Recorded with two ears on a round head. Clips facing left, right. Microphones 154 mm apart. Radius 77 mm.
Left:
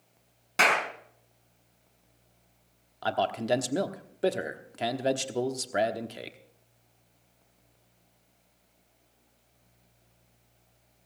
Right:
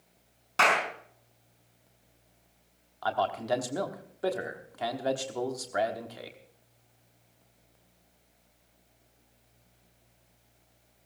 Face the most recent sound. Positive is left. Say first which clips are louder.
# left 1 dB
turn(degrees=30)  # may be behind; listen again after turning